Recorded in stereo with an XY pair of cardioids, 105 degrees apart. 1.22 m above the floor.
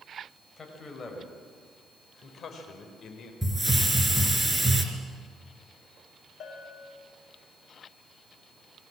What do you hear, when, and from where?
0.6 s a man speaking: 30° left, 6.5 m; by 3.3 s 60° left, 5 m
3.4 s a hiss: straight ahead, 4 m
6.4 s a bell: 65° left, 5 m